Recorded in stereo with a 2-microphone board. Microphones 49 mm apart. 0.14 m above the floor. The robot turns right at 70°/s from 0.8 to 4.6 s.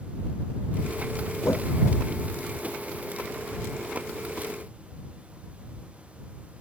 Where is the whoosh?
75° left (ahead or behind).